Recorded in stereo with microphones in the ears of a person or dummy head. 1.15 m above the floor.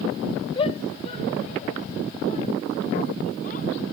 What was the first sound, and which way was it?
A shout, 35° left (ahead or behind).